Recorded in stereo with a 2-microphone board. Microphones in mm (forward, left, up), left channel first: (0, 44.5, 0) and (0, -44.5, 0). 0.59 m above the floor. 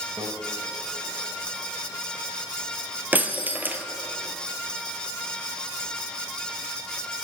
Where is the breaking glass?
20° right (ahead or behind), 1.9 m.